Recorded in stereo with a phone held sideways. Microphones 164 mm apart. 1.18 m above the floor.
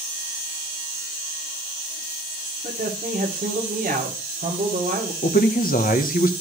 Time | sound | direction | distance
2.6 | a man speaking | 60° right (ahead or behind) | 2.5 m
5.2 | a man speaking | 60° left (ahead or behind) | 1.1 m